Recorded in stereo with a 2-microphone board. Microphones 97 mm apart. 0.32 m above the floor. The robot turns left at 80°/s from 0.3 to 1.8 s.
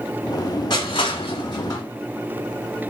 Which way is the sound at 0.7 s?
55° left (ahead or behind).